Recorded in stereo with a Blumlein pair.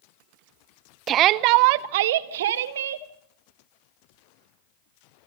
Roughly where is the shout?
Ahead right.